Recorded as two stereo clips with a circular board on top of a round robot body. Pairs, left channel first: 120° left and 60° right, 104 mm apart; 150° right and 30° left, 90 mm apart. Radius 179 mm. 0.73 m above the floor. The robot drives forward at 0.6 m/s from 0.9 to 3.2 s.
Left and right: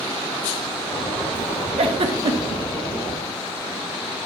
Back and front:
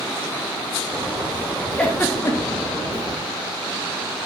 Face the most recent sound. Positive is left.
turn(degrees=-120)